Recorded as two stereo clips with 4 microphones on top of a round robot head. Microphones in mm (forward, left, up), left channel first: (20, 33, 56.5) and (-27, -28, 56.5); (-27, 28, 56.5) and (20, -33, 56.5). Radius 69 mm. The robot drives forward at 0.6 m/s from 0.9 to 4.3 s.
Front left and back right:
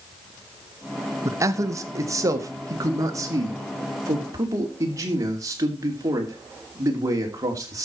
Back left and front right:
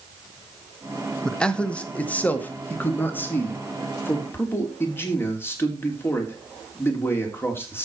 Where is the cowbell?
No cowbell in this recording.